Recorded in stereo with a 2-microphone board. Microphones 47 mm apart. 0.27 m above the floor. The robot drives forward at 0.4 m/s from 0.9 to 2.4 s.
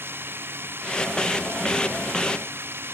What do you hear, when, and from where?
0.0 s running water: 50° right (ahead or behind); by 3.0 s 55° right (ahead or behind)